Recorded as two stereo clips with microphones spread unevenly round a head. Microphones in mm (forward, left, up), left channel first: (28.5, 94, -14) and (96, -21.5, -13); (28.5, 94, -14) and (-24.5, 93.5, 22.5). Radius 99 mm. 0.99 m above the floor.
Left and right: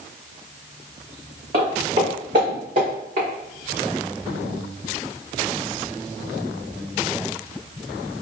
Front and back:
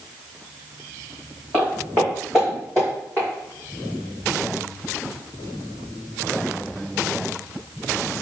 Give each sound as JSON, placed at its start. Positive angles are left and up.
{"t": 1.5, "sound": "footsteps", "azimuth_deg": -120, "distance_m": 3.5}